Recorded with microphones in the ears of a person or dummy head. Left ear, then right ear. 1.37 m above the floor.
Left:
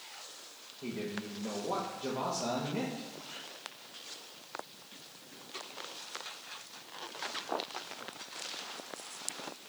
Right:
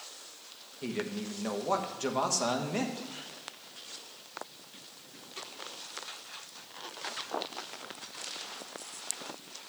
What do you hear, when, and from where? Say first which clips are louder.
0.8 s a man speaking: right 3 dB; 60° right (ahead or behind), 1.5 m